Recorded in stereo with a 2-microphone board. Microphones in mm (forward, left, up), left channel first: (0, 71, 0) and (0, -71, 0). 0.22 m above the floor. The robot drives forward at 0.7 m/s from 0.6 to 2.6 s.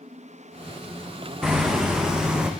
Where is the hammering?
5° right (ahead or behind), 4 m.